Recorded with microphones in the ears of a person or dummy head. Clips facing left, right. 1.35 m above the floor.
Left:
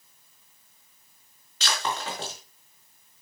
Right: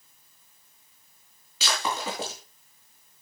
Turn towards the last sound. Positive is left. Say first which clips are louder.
# right 1 dB
turn(degrees=-5)  # may be behind; listen again after turning